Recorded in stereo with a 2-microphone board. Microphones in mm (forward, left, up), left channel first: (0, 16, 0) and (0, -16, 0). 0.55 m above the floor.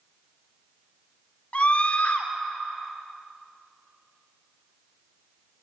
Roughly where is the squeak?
No squeak in this recording.